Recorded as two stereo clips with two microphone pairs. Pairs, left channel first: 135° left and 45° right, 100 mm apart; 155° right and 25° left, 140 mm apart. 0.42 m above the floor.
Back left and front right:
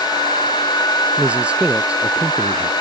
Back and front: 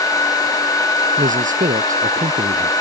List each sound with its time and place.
1.2 s a man speaking: 35° left